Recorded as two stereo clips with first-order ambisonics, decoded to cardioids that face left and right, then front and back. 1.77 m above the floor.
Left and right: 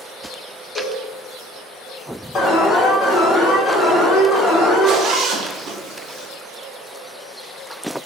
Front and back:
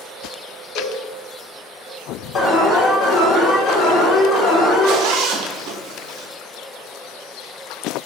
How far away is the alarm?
About 1.1 m.